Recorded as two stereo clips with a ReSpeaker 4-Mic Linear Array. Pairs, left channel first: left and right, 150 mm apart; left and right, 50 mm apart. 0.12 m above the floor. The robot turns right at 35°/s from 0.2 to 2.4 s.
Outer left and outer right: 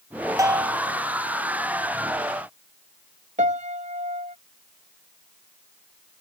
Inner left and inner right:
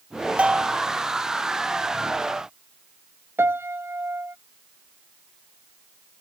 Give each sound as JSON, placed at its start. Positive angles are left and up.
{"t": 0.4, "sound": "a bell", "side_deg": -20}
{"t": 3.4, "sound": "a piano", "side_deg": -50}